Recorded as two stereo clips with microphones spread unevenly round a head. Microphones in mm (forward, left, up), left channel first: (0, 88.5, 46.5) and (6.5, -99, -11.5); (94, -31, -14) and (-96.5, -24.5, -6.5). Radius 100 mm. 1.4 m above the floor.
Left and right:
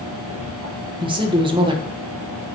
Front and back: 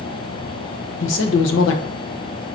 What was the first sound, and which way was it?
A man speaking, 25° right.